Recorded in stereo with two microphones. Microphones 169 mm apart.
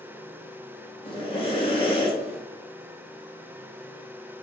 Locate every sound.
1.1 s breathing: 35° left (ahead or behind), 1.5 m